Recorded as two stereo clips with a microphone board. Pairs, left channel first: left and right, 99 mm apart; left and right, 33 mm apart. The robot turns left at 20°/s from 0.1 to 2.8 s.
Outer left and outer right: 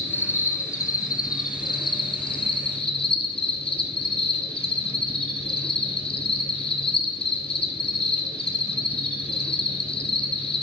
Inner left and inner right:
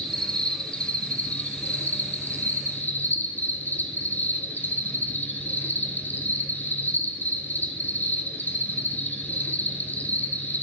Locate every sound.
0.0 s an insect: 160° left, 1.2 m; by 10.6 s 105° left, 1.2 m